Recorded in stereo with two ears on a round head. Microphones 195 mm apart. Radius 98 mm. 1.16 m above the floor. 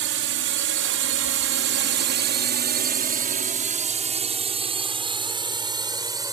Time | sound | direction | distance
0.0 | a drone | 60° right (ahead or behind) | ?